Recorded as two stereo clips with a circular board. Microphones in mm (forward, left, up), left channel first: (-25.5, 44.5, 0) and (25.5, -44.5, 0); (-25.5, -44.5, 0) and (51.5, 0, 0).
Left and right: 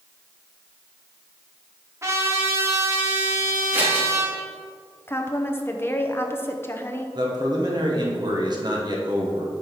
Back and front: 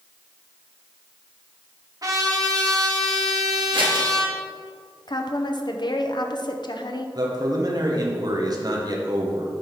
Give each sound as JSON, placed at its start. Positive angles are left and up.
{"t": 2.0, "sound": "a trumpet", "azimuth_deg": -5, "distance_m": 1.3}
{"t": 3.7, "sound": "scissors", "azimuth_deg": 10, "distance_m": 2.5}
{"t": 5.1, "sound": "a woman speaking", "azimuth_deg": -175, "distance_m": 0.7}
{"t": 7.2, "sound": "a man speaking", "azimuth_deg": -15, "distance_m": 1.3}